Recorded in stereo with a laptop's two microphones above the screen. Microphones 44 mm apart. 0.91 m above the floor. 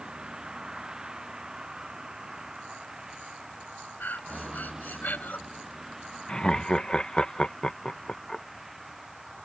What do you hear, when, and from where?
0.0 s a vehicle: 20° right (ahead or behind); by 9.4 s 5° right (ahead or behind)
4.0 s breathing: 45° left (ahead or behind)
6.3 s laughter: 20° left (ahead or behind)